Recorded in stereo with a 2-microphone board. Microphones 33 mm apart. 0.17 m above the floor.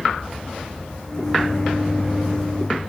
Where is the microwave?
20° left (ahead or behind), 0.8 m.